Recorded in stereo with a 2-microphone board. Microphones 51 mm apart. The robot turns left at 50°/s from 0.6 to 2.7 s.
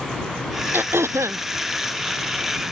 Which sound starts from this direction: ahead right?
Throat clearing, at 0.7 s.